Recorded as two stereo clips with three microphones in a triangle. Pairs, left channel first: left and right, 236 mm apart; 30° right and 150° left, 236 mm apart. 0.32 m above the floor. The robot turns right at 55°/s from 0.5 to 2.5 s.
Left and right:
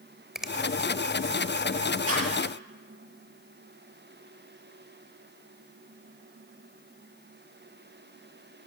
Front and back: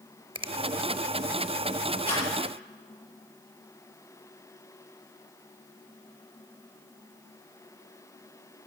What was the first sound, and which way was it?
A finger snap, 175° right.